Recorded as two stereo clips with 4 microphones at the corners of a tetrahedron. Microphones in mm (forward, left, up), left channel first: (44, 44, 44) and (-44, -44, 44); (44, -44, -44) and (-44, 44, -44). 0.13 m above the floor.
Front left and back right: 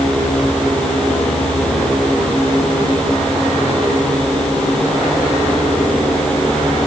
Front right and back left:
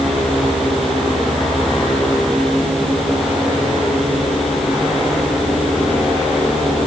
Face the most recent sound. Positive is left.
No sound to turn to.